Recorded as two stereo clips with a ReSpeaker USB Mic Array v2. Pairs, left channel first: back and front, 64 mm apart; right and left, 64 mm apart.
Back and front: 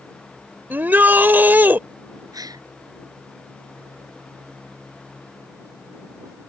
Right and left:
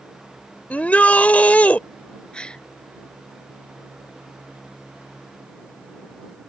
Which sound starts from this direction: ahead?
A gasp, at 2.3 s.